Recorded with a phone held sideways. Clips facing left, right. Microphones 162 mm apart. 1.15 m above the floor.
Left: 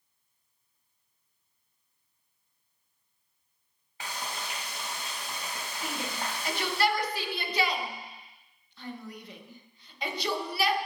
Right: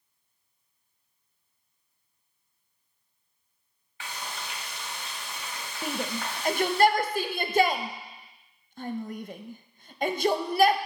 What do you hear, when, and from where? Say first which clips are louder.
4.0 s frying: left 1 dB; 40° left (ahead or behind), 2 m
5.8 s a shout: right 4 dB; 50° right (ahead or behind), 0.7 m